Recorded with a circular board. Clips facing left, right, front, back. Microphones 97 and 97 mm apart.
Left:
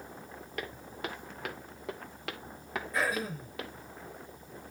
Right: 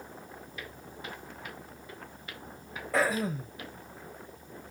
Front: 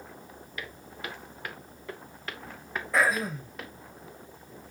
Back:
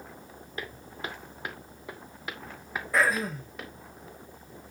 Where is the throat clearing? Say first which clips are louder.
Right 5 dB, even; 90° right, 4.5 m.